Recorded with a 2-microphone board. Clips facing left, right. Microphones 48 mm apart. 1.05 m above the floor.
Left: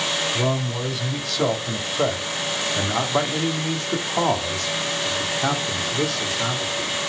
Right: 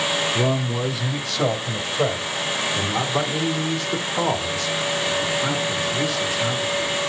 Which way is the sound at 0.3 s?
10° right (ahead or behind).